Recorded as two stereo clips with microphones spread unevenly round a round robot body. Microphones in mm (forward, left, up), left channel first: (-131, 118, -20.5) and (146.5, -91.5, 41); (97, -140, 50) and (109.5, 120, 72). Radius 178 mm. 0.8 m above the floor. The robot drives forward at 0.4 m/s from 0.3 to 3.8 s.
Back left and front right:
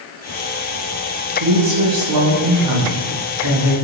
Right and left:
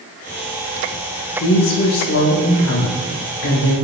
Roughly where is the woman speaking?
Right.